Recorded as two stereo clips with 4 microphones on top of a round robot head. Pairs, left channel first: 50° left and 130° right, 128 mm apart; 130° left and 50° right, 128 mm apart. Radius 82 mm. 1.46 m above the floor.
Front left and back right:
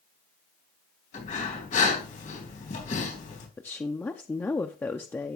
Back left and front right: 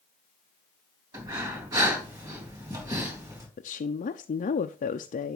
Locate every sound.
1.1 s breathing: 15° left, 3.5 m
3.6 s a woman speaking: 120° left, 0.5 m